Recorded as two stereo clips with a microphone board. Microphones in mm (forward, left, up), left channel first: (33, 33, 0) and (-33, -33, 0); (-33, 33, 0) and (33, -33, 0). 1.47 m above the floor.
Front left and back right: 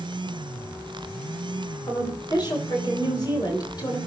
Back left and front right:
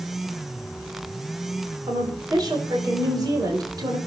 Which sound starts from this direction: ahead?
A woman speaking, at 1.9 s.